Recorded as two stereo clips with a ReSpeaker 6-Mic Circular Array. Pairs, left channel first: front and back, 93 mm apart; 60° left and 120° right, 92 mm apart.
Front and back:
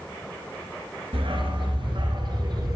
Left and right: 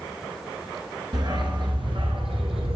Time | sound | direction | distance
1.1 | a dog barking | 160° right | 1.7 m